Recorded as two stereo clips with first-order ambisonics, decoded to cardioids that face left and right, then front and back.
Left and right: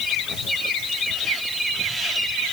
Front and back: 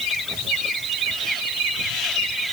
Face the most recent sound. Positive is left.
No sound to turn to.